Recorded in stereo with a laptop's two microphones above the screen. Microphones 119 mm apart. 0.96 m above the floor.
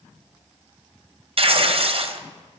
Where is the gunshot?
No gunshot in this recording.